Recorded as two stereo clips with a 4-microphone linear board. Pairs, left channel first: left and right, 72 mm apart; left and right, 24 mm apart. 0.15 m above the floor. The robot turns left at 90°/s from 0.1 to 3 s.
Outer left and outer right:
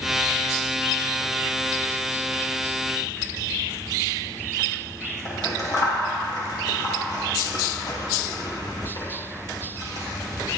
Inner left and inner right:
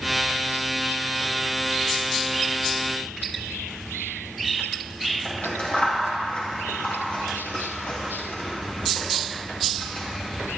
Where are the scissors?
60° left (ahead or behind), 3.5 m.